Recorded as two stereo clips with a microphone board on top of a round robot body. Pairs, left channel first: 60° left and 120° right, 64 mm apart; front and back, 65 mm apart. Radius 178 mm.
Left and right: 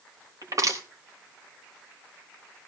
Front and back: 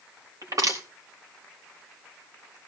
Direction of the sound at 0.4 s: 155° right.